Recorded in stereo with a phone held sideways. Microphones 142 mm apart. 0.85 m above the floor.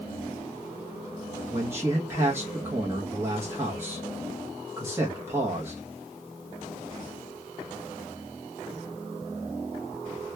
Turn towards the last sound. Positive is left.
turn(degrees=-15)  # may be behind; listen again after turning